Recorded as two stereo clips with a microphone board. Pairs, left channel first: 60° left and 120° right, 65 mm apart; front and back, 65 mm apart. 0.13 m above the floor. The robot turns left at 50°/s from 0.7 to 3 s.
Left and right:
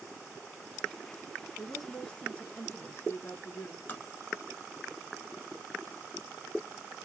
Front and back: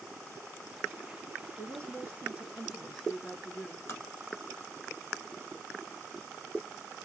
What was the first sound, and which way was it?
A woman speaking, 160° left.